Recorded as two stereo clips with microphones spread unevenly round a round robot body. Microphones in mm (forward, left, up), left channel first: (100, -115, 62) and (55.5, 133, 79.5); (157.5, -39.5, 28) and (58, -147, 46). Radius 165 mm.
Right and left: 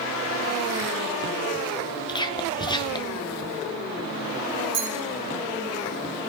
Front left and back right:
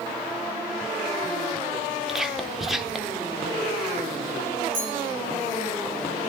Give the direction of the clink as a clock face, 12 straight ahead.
6 o'clock.